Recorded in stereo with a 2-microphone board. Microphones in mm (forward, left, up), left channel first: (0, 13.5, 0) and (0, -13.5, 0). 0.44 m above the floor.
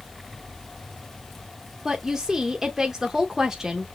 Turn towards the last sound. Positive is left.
turn(degrees=-15)  # may be behind; listen again after turning